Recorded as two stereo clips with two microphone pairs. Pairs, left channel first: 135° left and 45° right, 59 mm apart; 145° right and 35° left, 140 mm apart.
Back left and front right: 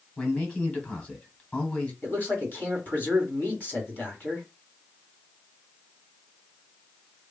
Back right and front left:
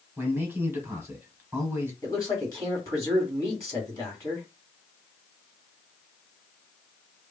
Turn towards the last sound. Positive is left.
turn(degrees=170)